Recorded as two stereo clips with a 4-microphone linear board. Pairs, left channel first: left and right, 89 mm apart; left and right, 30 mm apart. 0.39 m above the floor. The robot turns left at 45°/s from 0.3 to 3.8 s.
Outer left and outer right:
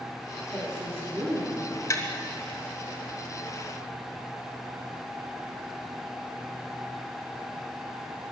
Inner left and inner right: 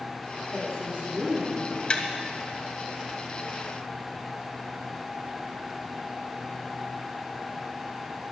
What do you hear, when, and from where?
0.5 s a woman speaking: 10° right, 7.5 m; by 1.8 s 70° right, 7.5 m
1.9 s tapping: 35° left (ahead or behind), 1.6 m; by 2.0 s 30° left (ahead or behind), 1.6 m